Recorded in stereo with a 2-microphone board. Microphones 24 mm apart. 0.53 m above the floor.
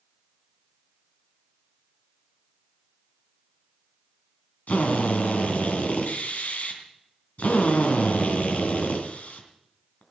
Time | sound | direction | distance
4.7 | a drill | 70° left (ahead or behind) | 3 m